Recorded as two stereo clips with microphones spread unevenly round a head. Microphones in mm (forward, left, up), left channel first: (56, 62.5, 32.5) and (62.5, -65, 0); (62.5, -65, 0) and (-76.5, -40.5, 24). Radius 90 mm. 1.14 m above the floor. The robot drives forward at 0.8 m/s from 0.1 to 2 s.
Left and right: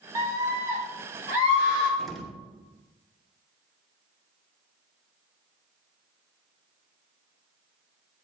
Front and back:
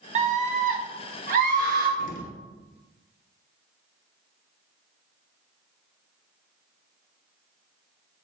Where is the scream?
150° right, 1.1 m; by 1.9 s 165° right, 2.5 m.